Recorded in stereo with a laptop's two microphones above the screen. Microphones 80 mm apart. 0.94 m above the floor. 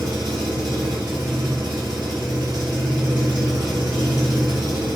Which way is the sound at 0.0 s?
60° right (ahead or behind).